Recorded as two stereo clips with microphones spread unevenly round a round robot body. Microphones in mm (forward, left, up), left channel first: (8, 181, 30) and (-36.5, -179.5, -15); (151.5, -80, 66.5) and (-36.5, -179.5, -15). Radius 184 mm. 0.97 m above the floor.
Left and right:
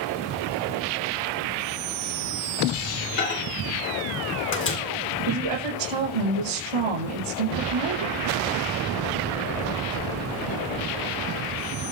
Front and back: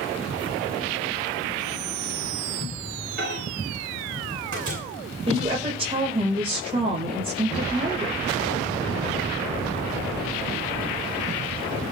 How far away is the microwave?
About 2.5 m.